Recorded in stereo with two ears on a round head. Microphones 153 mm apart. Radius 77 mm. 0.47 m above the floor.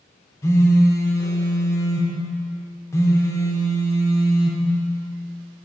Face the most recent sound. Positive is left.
turn(degrees=20)  # may be behind; listen again after turning